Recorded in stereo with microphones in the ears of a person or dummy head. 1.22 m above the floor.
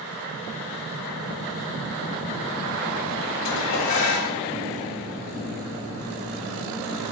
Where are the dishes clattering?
70° left (ahead or behind), 3.5 m.